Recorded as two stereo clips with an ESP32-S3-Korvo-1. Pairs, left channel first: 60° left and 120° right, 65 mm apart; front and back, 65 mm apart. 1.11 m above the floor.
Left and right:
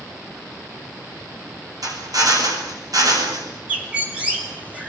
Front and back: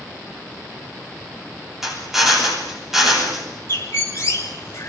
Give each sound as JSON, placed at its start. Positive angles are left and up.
{"t": 1.8, "sound": "a drill", "azimuth_deg": -95, "distance_m": 9.5}
{"t": 3.7, "sound": "a bird", "azimuth_deg": -50, "distance_m": 5.5}